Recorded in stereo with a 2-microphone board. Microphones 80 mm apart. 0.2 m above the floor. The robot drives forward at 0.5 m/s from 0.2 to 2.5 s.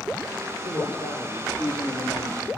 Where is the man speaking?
70° left (ahead or behind), 5 m; by 2.5 s 80° left, 5 m.